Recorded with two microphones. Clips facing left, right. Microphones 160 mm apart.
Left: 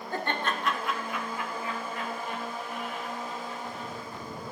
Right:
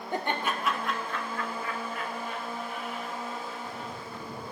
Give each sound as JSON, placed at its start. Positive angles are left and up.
{"t": 0.1, "sound": "laughter", "side_deg": -20, "distance_m": 1.1}